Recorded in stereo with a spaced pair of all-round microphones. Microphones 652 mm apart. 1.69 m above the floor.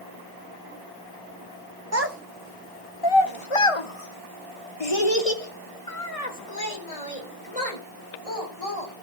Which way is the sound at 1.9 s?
25° right (ahead or behind).